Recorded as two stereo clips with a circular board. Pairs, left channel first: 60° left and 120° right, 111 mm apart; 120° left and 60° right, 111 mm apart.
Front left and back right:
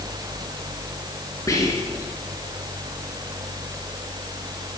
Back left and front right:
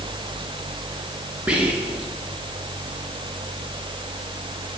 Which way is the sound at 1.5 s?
15° left.